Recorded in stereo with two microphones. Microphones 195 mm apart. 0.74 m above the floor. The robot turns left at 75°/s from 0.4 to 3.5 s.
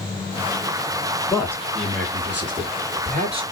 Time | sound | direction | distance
1.3 | a man speaking | 5° left | 1.3 m